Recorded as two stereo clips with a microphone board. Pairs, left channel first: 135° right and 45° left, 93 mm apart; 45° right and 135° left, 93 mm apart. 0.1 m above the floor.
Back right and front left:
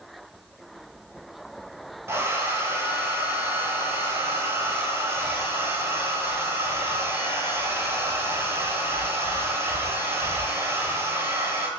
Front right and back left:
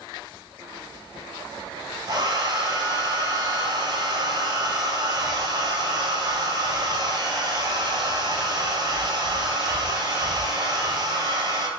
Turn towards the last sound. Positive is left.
turn(degrees=100)